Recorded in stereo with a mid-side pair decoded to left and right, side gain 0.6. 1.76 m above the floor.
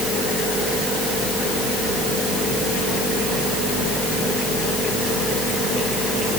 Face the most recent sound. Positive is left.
No sound to turn to.